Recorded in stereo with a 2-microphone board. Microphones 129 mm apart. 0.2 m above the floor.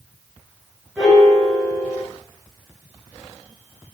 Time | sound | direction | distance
1.0 | a piano | 5° right (ahead or behind) | 3 m